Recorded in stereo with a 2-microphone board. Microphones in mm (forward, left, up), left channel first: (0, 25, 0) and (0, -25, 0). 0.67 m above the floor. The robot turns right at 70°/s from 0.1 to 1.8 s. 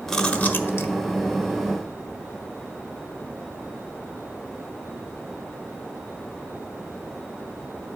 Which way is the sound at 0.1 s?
5° left (ahead or behind).